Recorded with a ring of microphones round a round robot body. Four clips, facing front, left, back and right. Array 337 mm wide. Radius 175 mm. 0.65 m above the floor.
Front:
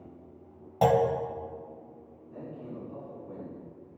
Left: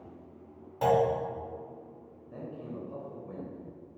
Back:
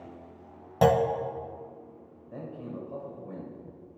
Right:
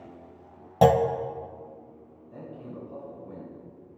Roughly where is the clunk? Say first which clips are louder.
Right 5 dB, back 1 dB; behind right.